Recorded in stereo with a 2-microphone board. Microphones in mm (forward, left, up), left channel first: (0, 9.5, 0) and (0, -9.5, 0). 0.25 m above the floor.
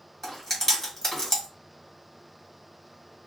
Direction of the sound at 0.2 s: 35° left (ahead or behind).